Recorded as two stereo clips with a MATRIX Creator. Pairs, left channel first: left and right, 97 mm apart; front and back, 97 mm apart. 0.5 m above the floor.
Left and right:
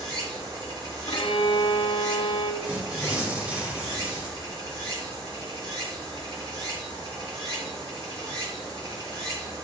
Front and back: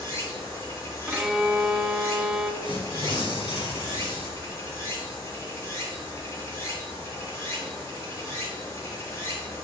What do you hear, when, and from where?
0.0 s running water: 60° right, 3 m
1.1 s a violin: 95° left, 0.9 m
2.6 s tearing paper: 15° right, 2 m